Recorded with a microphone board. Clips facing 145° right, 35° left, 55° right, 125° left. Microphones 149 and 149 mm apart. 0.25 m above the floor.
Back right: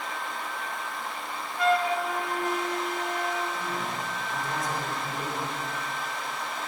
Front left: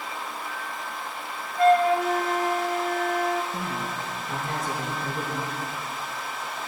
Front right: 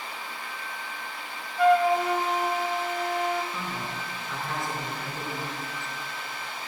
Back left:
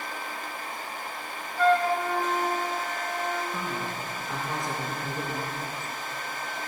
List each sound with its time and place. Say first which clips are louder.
1.6 s a flute: front left 6 dB, front right 2 dB; 15° left, 0.6 m
3.5 s a woman speaking: front left 1 dB, back left 2 dB; 50° left, 3 m